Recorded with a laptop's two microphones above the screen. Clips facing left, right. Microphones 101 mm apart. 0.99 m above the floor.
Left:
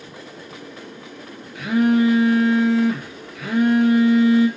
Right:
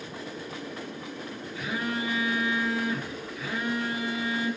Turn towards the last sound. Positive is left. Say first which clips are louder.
# left 15 dB
turn(degrees=65)  # may be behind; listen again after turning